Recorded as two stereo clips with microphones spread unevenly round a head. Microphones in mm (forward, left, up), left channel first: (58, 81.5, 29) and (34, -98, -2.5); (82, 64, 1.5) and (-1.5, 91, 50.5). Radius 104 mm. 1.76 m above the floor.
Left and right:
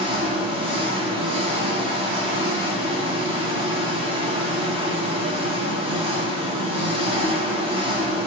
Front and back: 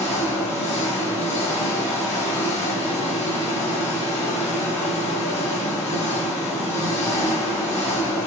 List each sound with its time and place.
0.0 s an engine running: 35° right, 1.0 m